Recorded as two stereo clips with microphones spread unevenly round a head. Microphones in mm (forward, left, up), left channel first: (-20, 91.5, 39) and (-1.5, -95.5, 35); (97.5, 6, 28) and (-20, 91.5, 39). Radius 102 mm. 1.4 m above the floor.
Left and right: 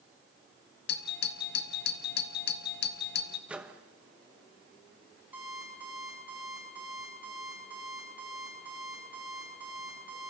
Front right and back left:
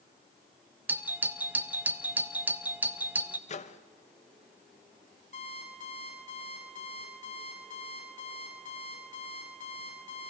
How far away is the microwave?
About 0.9 m.